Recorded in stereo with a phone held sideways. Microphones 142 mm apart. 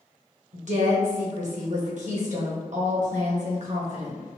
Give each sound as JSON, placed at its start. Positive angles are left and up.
{"t": 0.5, "sound": "a woman speaking", "side_deg": -60, "distance_m": 1.0}